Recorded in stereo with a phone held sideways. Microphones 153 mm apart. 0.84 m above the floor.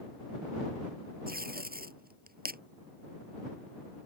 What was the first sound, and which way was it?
Tape being pulled, 80° right.